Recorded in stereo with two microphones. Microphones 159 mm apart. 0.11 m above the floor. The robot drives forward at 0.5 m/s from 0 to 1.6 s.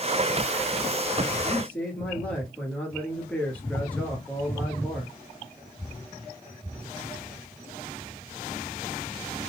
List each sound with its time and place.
1.4 s a man speaking: 10° left (ahead or behind), 1.3 m